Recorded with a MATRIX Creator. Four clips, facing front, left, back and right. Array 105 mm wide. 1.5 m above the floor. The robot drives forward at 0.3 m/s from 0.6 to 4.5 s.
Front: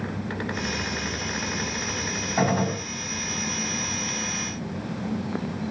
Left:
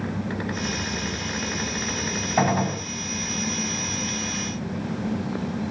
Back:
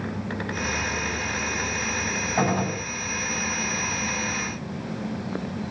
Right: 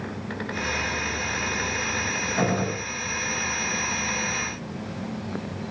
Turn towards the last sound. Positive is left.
turn(degrees=110)